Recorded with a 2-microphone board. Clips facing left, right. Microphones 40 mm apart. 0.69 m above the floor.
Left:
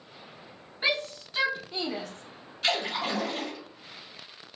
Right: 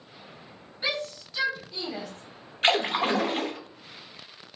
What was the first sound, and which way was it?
A shout, 30° left (ahead or behind).